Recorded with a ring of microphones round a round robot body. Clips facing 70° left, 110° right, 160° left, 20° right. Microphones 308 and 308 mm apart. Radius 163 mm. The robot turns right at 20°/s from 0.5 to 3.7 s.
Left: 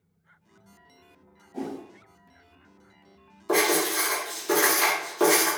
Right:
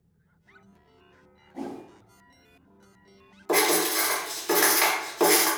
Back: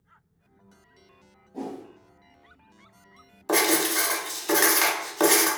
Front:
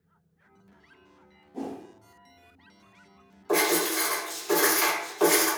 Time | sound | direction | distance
1.5 | a whoosh | 50° left | 0.5 m
3.5 | writing | 160° left | 0.8 m